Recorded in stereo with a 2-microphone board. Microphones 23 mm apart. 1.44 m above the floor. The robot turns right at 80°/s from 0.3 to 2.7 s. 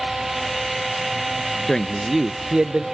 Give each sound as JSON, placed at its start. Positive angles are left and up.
{"t": 1.7, "sound": "a man speaking", "azimuth_deg": 155, "distance_m": 0.7}